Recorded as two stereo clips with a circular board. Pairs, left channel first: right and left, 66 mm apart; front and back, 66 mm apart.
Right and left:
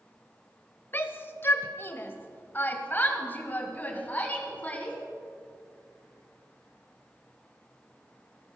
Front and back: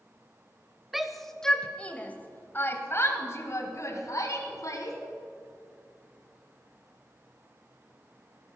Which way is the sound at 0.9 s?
100° right.